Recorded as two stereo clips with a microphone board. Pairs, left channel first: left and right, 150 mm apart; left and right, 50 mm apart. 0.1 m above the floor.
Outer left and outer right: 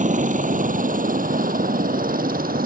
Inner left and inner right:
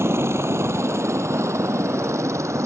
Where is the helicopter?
55° right (ahead or behind); by 2.7 s 70° right (ahead or behind).